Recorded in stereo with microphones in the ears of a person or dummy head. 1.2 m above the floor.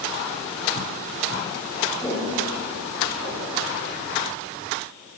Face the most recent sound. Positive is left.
turn(degrees=5)  # may be behind; listen again after turning